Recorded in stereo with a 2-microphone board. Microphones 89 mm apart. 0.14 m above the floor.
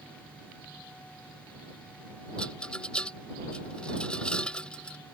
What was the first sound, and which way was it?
A rattle, 10° left (ahead or behind).